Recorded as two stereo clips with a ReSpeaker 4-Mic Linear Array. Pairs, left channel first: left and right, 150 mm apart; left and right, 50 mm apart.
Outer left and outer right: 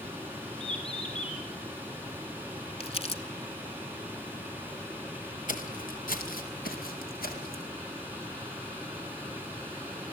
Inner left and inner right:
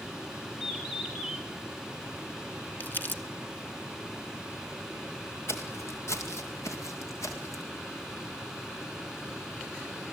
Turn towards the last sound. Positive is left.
turn(degrees=75)  # may be behind; listen again after turning